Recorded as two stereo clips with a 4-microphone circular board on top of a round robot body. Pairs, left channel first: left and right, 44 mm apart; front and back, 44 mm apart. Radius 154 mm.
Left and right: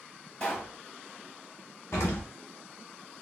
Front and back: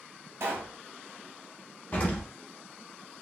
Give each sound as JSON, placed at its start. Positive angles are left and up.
{"t": 0.4, "sound": "a pop", "azimuth_deg": 150, "distance_m": 1.3}
{"t": 1.9, "sound": "an explosion", "azimuth_deg": 60, "distance_m": 0.8}